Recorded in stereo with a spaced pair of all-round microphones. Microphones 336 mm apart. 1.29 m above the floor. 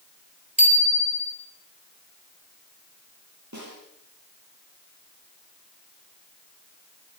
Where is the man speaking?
No man speaking in this recording.